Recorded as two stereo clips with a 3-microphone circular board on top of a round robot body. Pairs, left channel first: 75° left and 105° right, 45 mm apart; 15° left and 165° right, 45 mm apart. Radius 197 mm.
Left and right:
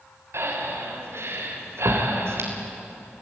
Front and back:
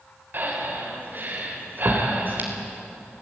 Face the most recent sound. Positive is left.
turn(degrees=-120)